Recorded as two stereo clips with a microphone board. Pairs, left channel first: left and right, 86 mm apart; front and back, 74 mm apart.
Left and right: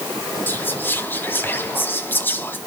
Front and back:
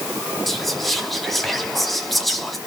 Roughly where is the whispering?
Left.